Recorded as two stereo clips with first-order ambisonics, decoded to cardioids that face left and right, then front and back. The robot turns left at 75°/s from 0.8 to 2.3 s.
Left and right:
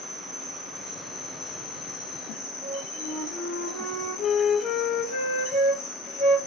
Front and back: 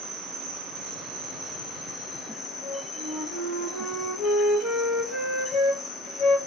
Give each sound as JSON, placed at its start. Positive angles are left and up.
{"t": 0.0, "sound": "an insect", "azimuth_deg": -175, "distance_m": 1.4}
{"t": 2.6, "sound": "a flute", "azimuth_deg": 75, "distance_m": 3.5}